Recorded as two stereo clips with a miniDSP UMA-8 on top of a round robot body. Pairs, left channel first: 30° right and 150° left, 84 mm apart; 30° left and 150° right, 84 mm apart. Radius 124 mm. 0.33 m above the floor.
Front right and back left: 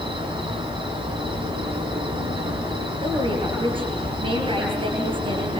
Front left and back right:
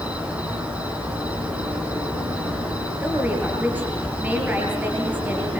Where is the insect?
135° left, 7 m.